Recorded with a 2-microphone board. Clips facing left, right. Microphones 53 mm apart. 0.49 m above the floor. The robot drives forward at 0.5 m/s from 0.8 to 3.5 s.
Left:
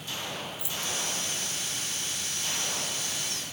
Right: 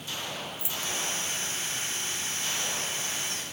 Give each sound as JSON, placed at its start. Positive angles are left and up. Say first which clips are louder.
{"t": 0.6, "sound": "keys jangling", "louder": "even", "side_deg": -30, "distance_m": 2.0}